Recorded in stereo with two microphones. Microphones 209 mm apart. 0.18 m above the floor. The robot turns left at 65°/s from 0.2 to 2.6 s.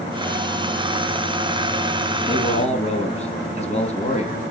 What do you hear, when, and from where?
2.2 s a man speaking: 15° left (ahead or behind), 1.9 m; by 4.4 s 30° left (ahead or behind), 1.9 m